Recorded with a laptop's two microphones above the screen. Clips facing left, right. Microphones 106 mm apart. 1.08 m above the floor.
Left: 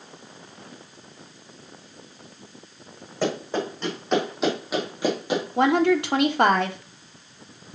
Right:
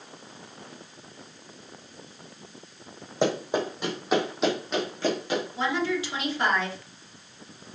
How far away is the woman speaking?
About 1.2 m.